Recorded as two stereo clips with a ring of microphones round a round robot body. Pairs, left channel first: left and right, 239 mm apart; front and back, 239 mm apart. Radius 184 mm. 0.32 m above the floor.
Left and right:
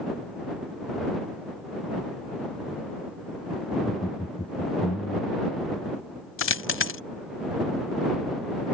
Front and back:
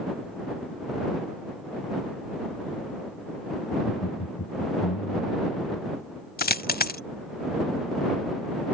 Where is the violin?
No violin in this recording.